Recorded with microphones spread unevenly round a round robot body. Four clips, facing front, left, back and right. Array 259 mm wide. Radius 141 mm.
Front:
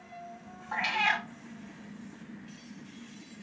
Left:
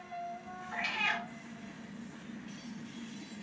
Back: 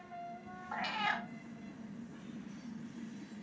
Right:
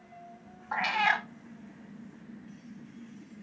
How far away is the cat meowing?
About 0.6 m.